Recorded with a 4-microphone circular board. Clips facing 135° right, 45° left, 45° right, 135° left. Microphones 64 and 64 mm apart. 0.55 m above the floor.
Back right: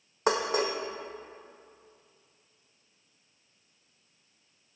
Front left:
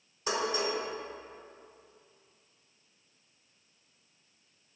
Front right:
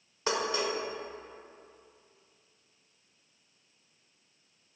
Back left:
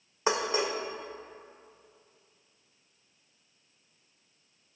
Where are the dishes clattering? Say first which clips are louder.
Back right 4 dB, back left 2 dB; 155° right, 1.2 m.